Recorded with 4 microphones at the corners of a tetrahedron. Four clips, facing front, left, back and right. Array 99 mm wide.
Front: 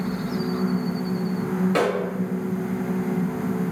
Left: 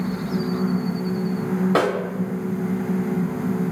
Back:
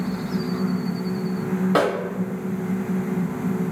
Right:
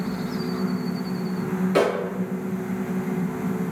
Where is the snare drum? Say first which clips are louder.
Right 1 dB, back 2 dB; 120° left, 1.1 m.